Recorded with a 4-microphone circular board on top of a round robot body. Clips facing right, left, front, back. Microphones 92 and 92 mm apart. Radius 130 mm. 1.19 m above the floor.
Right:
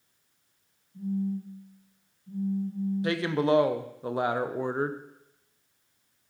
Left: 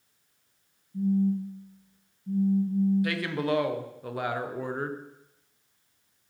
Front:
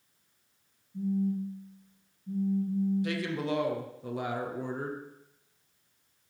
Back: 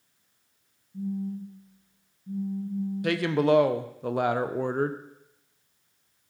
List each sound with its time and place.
0.9 s a phone buzzing: 105° left, 3 m
3.0 s a woman speaking: 155° right, 0.5 m